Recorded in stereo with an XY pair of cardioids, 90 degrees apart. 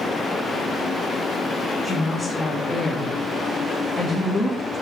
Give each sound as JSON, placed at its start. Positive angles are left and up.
{"t": 1.8, "sound": "a woman speaking", "azimuth_deg": 25, "distance_m": 1.2}